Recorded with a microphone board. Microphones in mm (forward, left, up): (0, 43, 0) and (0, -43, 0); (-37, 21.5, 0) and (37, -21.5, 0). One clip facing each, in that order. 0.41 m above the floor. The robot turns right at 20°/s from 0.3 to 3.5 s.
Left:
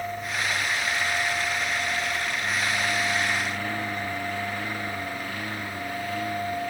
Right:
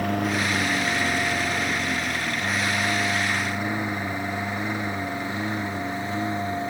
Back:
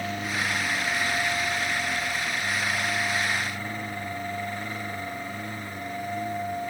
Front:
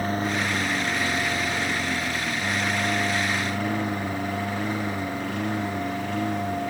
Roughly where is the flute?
No flute in this recording.